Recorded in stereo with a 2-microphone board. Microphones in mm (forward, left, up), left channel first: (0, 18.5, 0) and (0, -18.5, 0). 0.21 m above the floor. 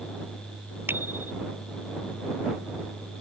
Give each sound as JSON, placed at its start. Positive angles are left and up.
{"t": 0.9, "sound": "a bicycle bell", "side_deg": -85}